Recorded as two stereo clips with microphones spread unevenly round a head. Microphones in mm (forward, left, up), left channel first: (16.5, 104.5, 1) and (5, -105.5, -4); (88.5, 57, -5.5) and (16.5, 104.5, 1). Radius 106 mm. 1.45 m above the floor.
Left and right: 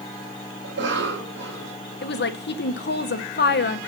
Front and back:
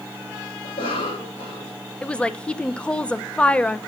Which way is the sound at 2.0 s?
45° left.